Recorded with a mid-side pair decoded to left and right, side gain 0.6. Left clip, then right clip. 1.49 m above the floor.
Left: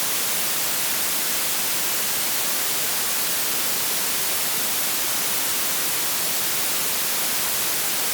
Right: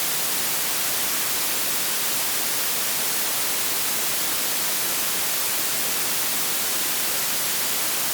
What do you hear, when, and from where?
Only background noise.